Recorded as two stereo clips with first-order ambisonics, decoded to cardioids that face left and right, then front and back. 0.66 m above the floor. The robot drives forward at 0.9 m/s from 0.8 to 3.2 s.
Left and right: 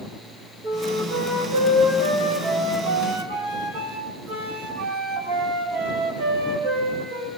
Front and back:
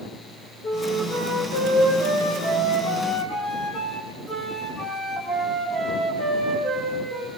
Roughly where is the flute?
Ahead right.